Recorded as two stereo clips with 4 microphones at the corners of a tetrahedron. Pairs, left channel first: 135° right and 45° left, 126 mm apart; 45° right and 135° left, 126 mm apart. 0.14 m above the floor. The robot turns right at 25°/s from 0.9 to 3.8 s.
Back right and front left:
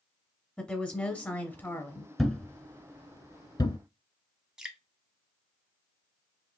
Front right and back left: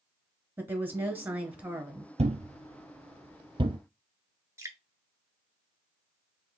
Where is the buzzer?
I don't hear a buzzer.